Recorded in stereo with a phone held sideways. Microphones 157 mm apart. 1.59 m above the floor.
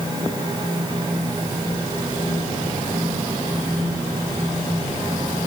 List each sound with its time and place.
0.0 s a fan: 30° right (ahead or behind), 10 m